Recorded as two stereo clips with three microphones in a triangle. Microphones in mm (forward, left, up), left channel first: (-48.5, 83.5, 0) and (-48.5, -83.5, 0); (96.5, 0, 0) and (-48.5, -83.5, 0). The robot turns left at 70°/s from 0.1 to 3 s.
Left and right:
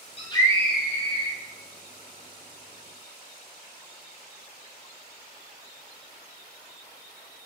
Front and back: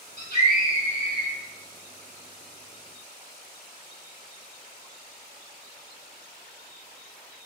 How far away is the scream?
About 4.5 m.